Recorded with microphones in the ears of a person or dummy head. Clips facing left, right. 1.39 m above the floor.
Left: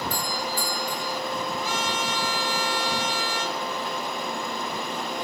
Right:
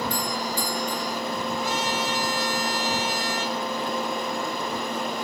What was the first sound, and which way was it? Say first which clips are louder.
A doorbell: right 2 dB; 5° left (ahead or behind).